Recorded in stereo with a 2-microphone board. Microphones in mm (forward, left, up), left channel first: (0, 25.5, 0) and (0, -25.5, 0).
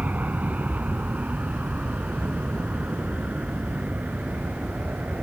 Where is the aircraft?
35° right (ahead or behind); by 5.2 s 30° right (ahead or behind).